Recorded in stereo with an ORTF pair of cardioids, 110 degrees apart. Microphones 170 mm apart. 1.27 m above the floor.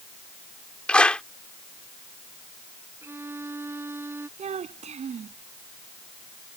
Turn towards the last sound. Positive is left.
turn(degrees=-45)